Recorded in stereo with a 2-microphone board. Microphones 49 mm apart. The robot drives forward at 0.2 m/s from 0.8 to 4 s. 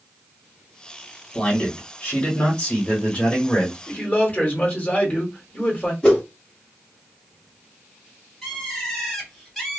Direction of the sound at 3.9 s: 35° left (ahead or behind).